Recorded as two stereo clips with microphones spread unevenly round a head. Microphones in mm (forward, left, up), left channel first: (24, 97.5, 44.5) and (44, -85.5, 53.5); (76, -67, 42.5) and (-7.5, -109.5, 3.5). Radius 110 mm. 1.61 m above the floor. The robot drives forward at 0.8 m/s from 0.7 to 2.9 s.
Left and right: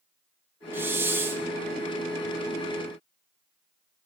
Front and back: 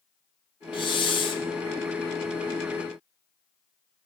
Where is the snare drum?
No snare drum in this recording.